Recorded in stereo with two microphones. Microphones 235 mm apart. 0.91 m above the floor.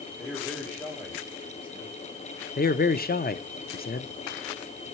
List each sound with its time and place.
0.2 s a man speaking: 5° left (ahead or behind), 4.5 m
2.6 s a man speaking: 40° left (ahead or behind), 0.6 m